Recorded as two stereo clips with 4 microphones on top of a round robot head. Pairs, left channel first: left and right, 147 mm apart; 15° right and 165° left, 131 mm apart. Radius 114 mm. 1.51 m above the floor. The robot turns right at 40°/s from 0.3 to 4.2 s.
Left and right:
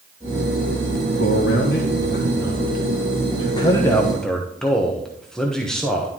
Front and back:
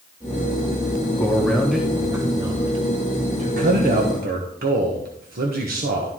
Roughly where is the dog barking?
No dog barking in this recording.